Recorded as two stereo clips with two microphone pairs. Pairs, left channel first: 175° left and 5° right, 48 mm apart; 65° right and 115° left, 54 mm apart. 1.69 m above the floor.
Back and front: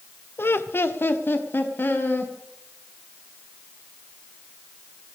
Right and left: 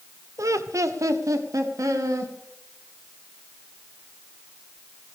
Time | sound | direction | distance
0.4 | laughter | 140° left | 0.7 m